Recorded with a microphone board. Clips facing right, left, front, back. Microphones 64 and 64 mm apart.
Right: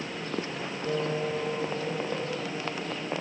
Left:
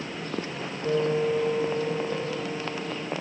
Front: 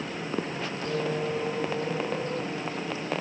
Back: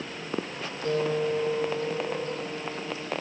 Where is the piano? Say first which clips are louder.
Left 6 dB, back 4 dB; 120° left, 7.5 m.